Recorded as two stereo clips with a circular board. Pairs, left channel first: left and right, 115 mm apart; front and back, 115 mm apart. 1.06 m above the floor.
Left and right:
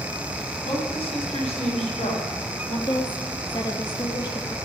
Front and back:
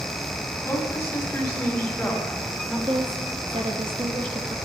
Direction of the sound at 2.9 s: 140° left.